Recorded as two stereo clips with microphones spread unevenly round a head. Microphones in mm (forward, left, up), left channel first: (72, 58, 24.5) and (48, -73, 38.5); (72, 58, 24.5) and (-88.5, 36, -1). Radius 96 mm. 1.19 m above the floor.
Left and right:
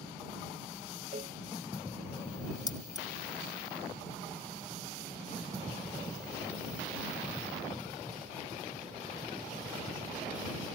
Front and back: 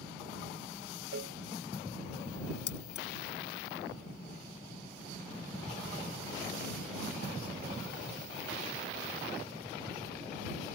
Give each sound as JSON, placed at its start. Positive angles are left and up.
{"t": 1.1, "sound": "a cowbell", "azimuth_deg": -155}
{"t": 2.7, "sound": "keys jangling", "azimuth_deg": 20}